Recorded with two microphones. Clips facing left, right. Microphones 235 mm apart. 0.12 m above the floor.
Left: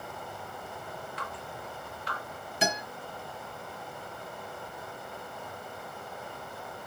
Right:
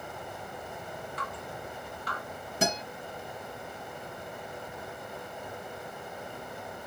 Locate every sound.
1.2 s dripping: 50° right (ahead or behind), 2.5 m
2.6 s a guitar: 45° right (ahead or behind), 2.5 m